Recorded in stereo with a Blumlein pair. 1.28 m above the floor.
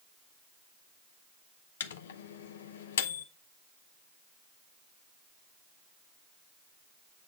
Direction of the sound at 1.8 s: 60° left.